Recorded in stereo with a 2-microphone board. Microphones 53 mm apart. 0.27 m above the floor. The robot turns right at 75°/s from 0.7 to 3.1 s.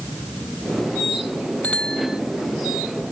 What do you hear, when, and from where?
1.6 s a bicycle bell: 150° left; by 2.2 s 170° right